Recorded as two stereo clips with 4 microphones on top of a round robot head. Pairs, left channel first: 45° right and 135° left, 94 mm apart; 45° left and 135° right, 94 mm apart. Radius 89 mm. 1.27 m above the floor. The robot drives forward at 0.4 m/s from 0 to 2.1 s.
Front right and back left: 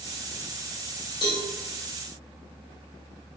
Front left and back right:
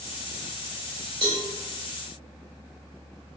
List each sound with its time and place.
1.2 s a cowbell: 95° right, 2.0 m; by 1.4 s 100° right, 2.0 m